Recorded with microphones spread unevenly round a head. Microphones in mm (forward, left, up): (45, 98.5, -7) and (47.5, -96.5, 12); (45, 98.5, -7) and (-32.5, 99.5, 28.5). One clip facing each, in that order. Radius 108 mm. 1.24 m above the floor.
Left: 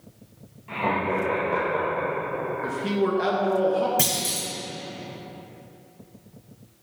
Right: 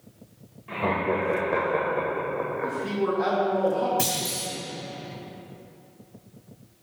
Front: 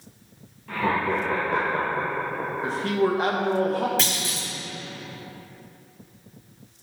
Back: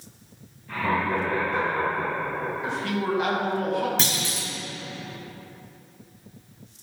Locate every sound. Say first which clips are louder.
0.7 s laughter: even, front 1 dB; 10° right, 1.7 m; by 2.7 s 40° right, 0.9 m
2.6 s a man speaking: left 3 dB, front 6 dB; 40° left, 1.5 m
4.0 s a clunk: even, even; 130° left, 2 m